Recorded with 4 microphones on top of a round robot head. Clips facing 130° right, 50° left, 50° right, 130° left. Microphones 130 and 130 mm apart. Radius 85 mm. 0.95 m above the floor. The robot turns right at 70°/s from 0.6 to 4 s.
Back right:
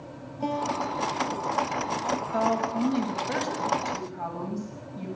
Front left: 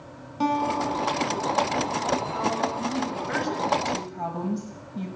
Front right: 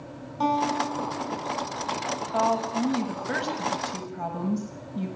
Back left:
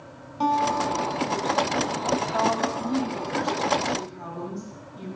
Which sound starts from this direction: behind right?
A woman speaking, at 2.3 s.